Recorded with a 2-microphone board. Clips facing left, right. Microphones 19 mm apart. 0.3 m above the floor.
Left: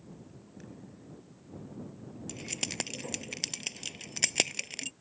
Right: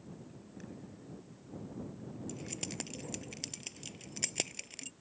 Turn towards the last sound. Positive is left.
turn(degrees=30)  # may be behind; listen again after turning